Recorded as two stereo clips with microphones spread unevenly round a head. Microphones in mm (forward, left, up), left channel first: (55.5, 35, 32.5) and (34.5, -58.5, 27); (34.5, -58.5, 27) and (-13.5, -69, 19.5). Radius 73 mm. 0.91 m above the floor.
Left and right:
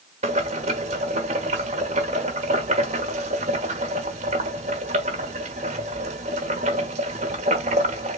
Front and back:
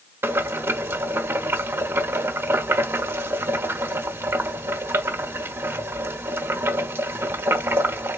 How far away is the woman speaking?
I don't hear a woman speaking.